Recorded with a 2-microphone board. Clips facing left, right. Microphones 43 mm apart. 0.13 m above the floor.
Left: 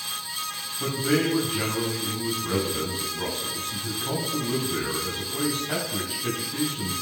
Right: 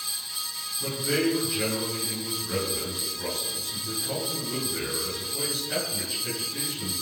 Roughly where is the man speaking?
Left.